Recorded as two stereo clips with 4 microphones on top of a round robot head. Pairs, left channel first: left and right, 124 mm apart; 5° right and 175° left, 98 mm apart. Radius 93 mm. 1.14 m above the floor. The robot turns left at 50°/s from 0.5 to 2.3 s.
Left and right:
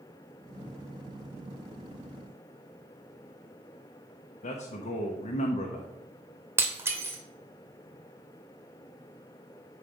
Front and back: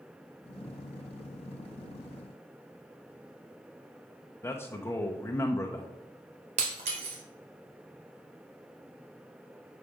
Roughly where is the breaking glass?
Behind.